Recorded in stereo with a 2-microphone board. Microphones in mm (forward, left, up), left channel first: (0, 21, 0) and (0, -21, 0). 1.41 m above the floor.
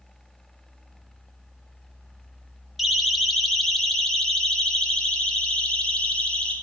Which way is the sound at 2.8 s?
5° right (ahead or behind).